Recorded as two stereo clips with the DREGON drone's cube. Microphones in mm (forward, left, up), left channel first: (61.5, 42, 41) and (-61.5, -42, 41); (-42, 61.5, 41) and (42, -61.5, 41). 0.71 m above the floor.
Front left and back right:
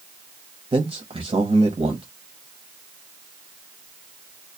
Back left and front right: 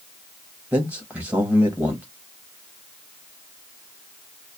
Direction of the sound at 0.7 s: 130° right.